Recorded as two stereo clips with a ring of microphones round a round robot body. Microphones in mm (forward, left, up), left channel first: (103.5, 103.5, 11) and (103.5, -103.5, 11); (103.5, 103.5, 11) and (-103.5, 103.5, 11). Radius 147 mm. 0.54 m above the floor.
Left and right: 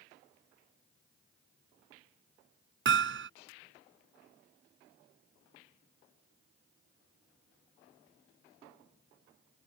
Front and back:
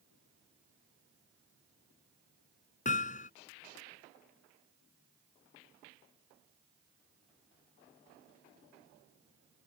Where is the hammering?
65° right.